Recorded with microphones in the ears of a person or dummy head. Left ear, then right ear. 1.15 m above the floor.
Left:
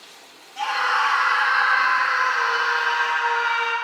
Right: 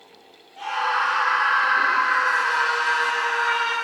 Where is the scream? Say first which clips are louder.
Left 2 dB; 70° left (ahead or behind), 1.9 m; by 3.7 s 5° left (ahead or behind), 1.9 m.